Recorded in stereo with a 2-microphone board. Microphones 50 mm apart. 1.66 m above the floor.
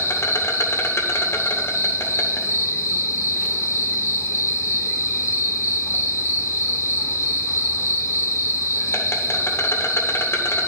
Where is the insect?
50° left (ahead or behind), 1.0 m.